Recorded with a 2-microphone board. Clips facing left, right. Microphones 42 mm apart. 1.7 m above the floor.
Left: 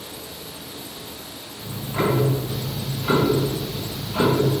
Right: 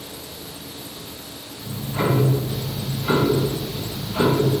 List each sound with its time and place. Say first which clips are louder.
1.6 s ticking: even; 30° left (ahead or behind), 0.8 m